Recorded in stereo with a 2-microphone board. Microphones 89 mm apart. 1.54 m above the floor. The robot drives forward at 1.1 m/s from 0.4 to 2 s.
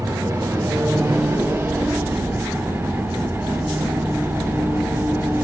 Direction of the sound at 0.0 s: 35° right (ahead or behind).